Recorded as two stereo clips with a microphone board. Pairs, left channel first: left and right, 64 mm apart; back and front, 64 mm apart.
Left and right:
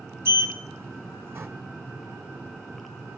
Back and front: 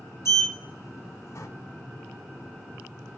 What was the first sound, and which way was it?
A sliding door, 140° right.